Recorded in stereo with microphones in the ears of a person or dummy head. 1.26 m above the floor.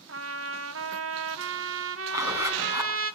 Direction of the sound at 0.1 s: 65° right (ahead or behind).